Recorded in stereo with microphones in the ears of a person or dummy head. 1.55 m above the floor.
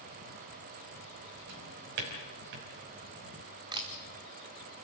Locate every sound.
1.5 s a drawer: 65° right (ahead or behind), 4.5 m
3.7 s a camera shutter: 25° right (ahead or behind), 1.6 m